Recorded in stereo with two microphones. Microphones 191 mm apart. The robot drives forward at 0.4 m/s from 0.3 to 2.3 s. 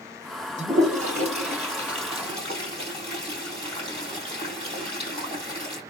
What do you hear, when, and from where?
0.6 s a toilet flushing: 40° right (ahead or behind), 2.5 m; by 5.8 s 30° right (ahead or behind), 3 m